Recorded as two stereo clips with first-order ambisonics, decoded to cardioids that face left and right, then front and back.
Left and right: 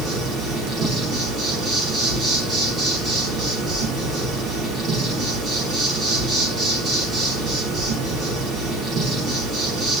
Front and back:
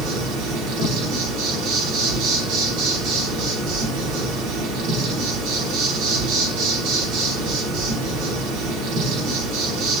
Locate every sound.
0.0 s an insect: 155° right, 6.5 m